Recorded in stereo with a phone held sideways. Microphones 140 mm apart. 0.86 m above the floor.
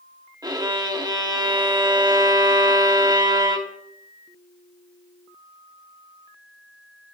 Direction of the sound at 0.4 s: 30° right (ahead or behind).